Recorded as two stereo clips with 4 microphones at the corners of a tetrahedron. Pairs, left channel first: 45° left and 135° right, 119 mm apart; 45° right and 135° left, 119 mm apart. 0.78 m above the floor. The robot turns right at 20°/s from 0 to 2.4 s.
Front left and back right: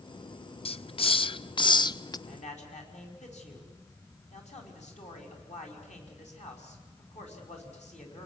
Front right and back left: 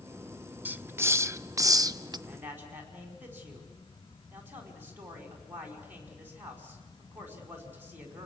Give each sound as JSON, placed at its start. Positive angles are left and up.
{"t": 0.7, "sound": "a hiss", "azimuth_deg": 65, "distance_m": 0.5}
{"t": 2.3, "sound": "a man speaking", "azimuth_deg": 60, "distance_m": 5.5}